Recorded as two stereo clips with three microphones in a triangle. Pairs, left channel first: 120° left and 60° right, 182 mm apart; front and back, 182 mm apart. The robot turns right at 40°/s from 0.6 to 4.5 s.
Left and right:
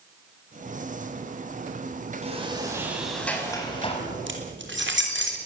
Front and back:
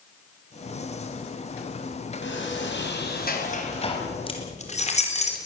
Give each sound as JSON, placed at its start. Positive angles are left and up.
{"t": 2.2, "sound": "a sliding door", "azimuth_deg": -5, "distance_m": 4.5}
{"t": 4.3, "sound": "keys jangling", "azimuth_deg": -60, "distance_m": 3.5}